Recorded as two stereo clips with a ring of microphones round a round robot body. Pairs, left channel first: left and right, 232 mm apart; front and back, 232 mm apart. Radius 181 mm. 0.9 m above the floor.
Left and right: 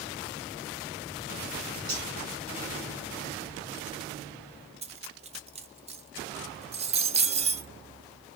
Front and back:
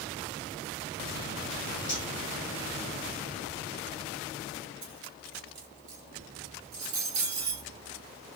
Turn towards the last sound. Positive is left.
turn(degrees=-155)